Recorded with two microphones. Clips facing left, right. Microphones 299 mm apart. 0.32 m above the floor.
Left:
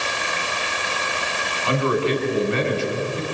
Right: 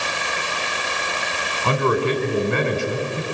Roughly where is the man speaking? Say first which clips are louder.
Right 1 dB; right.